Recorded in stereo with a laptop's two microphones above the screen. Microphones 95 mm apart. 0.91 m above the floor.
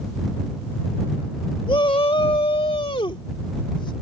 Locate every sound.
1.7 s a shout: 60° left (ahead or behind)